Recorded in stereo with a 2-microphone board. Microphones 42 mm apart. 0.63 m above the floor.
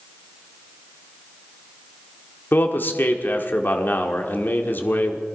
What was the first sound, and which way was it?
A man speaking, 50° left (ahead or behind).